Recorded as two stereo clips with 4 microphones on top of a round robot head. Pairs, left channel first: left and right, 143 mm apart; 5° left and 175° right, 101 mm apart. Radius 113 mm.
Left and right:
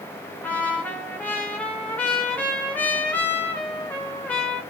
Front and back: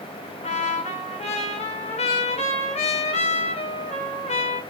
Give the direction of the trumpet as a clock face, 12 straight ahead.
12 o'clock.